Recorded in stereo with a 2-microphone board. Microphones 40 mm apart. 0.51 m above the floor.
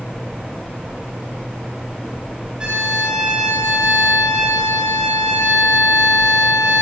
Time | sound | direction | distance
2.6 | a violin | 20° right (ahead or behind) | 8.5 m